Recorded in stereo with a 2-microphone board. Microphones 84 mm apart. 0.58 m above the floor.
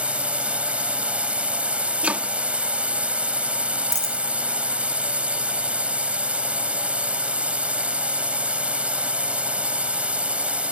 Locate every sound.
0.0 s a drone: 15° right (ahead or behind)
2.0 s chopping: 15° right (ahead or behind)
3.9 s a dropped coin: 5° left (ahead or behind)